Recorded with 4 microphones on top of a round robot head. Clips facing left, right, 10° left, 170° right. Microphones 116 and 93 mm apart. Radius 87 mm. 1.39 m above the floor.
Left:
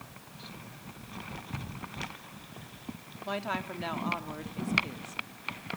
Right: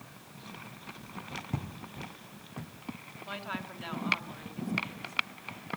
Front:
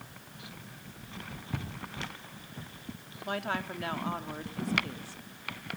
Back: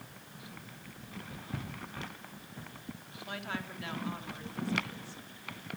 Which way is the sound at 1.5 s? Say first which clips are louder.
Right 2 dB, front 3 dB; 65° right.